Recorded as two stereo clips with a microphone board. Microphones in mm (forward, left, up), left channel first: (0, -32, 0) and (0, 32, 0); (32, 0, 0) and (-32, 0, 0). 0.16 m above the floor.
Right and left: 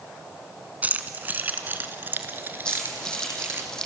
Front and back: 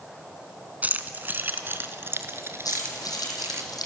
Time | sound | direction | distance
0.8 | keys jangling | 135° left | 1.3 m
2.6 | keys jangling | 10° right | 4 m